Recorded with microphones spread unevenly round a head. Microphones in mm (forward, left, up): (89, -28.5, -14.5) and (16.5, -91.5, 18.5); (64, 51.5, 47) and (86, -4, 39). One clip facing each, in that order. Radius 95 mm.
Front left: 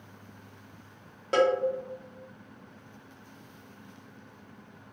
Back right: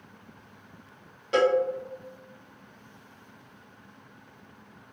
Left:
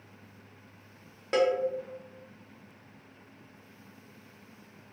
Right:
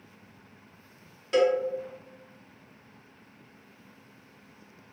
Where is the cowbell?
105° left, 0.6 m.